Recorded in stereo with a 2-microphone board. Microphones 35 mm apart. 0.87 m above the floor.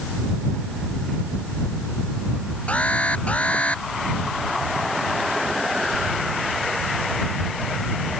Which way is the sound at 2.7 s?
35° left (ahead or behind).